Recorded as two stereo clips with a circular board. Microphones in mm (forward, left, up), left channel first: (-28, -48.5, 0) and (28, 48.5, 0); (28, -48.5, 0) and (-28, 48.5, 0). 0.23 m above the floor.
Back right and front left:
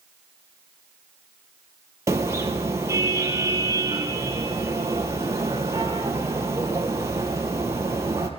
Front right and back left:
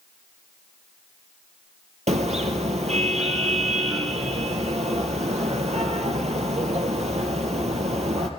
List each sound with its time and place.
2.1 s a car horn: 125° left, 3 m